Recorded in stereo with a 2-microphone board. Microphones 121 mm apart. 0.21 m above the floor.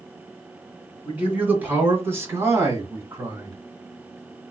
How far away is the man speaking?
About 2 m.